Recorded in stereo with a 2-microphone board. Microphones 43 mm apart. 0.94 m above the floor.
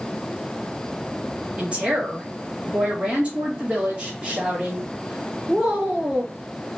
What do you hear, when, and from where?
1.6 s a woman speaking: 30° right (ahead or behind), 1.8 m